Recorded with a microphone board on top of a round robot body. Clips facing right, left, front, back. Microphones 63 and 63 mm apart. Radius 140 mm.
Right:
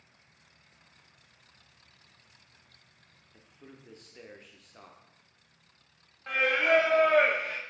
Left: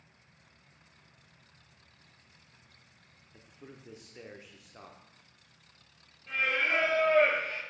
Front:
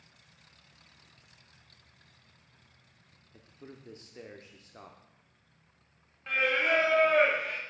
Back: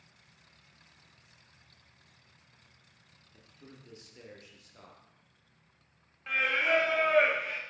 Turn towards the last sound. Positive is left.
turn(degrees=-90)